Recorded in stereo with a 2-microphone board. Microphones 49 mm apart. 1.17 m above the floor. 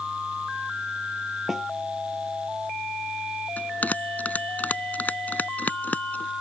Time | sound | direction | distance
1.5 | a snare drum | centre (ahead or behind) | ?
3.6 | a bell | 35° left (ahead or behind) | ?